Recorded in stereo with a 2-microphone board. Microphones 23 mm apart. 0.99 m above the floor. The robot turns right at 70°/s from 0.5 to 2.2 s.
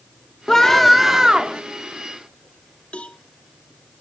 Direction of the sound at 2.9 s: 75° left (ahead or behind).